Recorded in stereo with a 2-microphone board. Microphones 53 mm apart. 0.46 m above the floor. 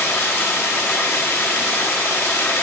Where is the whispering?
No whispering in this recording.